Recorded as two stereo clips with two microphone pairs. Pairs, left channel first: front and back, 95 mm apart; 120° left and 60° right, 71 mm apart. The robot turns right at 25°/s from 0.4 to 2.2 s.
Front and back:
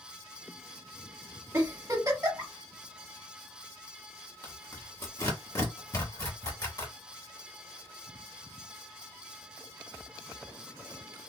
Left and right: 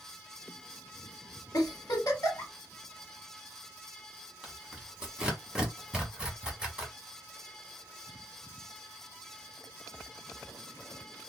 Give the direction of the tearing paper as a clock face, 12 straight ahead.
12 o'clock.